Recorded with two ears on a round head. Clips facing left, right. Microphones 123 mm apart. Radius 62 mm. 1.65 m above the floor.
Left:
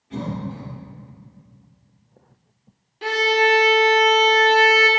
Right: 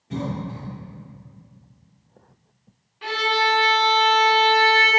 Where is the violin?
40° left (ahead or behind), 1.1 m.